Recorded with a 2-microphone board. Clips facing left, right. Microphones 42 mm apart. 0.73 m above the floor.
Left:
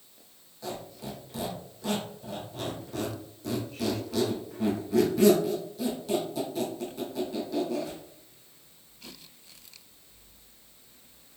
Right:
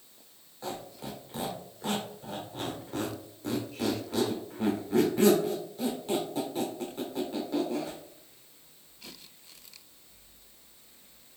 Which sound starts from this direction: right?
A squeak, at 0.6 s.